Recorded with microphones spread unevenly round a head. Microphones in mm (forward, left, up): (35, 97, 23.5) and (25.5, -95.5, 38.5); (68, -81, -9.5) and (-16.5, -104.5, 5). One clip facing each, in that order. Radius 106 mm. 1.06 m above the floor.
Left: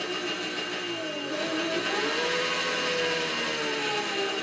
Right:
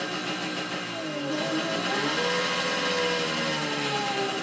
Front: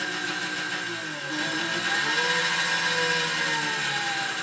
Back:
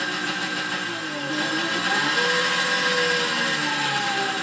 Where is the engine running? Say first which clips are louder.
Even, back 3 dB; 130° right, 1.1 m.